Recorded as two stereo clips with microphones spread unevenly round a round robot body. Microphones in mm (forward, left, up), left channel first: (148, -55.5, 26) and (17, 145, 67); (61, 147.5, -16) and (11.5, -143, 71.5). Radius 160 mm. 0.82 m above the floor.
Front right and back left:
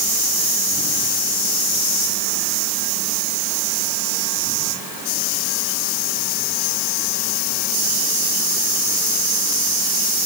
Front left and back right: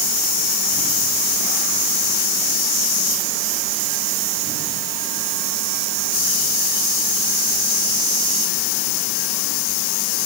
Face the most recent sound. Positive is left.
No sound to turn to.